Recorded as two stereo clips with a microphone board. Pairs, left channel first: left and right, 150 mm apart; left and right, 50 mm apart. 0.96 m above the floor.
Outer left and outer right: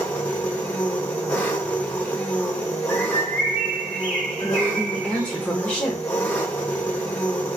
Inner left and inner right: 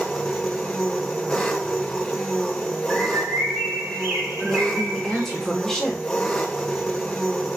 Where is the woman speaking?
10° left (ahead or behind), 1.1 m.